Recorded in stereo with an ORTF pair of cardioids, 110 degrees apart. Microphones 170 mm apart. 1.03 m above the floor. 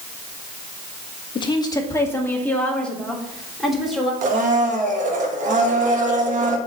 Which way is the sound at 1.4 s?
30° left.